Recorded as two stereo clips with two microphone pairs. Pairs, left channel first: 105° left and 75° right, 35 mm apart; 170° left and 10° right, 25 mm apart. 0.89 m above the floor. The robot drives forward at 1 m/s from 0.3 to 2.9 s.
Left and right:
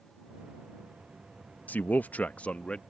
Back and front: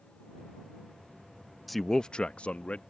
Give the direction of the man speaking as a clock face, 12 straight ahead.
9 o'clock.